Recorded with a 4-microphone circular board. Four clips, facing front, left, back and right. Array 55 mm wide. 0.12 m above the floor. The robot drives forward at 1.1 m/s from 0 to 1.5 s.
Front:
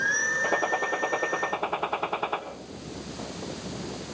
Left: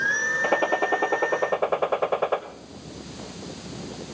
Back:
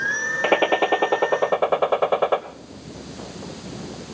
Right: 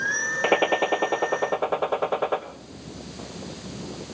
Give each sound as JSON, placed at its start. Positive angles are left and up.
{"t": 0.4, "sound": "a gunshot", "azimuth_deg": -140, "distance_m": 0.7}